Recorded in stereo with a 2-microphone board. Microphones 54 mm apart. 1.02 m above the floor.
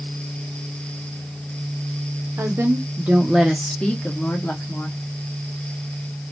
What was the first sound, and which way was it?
A woman speaking, 55° right (ahead or behind).